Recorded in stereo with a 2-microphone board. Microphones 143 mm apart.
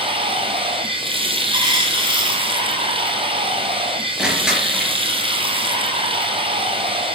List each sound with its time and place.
0.0 s running water: 40° right (ahead or behind), 3 m
1.5 s a dropped coin: 35° right (ahead or behind), 4.5 m
4.2 s crushing: 5° right (ahead or behind), 4 m